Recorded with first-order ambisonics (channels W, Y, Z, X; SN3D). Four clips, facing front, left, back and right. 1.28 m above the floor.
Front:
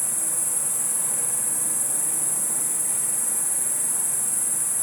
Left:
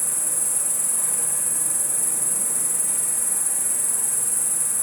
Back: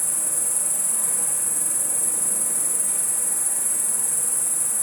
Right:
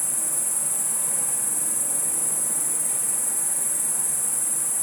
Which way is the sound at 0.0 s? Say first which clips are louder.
Left 2 dB, back 1 dB; 105° left.